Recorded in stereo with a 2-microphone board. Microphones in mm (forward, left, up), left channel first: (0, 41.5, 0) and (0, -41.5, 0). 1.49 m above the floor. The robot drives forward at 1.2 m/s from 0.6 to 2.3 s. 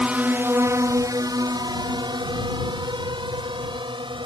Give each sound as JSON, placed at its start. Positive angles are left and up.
{"t": 0.0, "sound": "a drone", "side_deg": -15}